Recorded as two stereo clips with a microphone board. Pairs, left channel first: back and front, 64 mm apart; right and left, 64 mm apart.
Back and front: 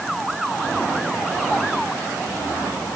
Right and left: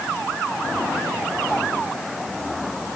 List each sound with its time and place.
Only background noise.